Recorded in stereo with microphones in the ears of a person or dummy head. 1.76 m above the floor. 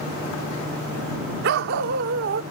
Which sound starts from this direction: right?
A dog barking, at 1.4 s.